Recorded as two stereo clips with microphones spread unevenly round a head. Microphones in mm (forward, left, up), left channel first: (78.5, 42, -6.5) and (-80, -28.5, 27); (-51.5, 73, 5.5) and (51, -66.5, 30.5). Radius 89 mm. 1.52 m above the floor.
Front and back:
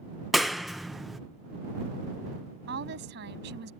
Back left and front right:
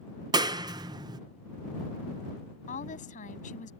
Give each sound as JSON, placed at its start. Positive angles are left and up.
{"t": 0.3, "sound": "a clap", "azimuth_deg": -85}
{"t": 2.7, "sound": "a woman speaking", "azimuth_deg": 175}